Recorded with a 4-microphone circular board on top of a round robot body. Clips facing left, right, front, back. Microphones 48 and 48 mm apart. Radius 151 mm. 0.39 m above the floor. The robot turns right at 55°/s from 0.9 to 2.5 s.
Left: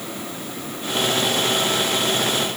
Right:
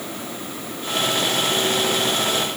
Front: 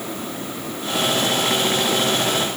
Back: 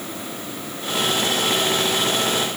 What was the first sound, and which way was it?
Only background noise.